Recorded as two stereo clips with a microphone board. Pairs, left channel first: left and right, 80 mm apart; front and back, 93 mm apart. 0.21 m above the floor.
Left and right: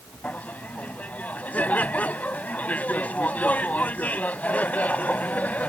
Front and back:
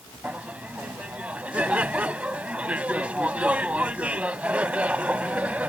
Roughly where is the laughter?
Behind left.